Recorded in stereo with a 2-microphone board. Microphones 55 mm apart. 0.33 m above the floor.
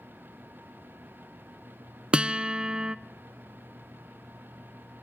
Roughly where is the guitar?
Centre.